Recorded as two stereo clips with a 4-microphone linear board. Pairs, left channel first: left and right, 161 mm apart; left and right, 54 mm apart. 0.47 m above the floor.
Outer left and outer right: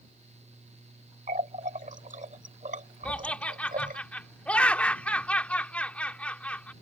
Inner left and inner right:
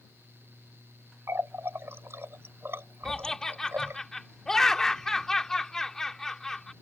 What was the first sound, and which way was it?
A running tap, 55° right (ahead or behind).